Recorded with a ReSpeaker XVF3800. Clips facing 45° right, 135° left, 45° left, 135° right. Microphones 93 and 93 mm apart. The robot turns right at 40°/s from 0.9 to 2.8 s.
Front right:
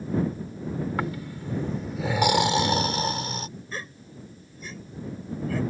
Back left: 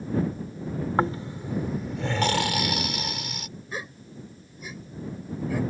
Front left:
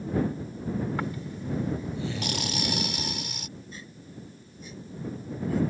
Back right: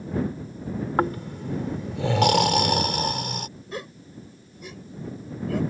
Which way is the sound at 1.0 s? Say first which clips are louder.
Back left 5 dB, back right 8 dB; 175° right.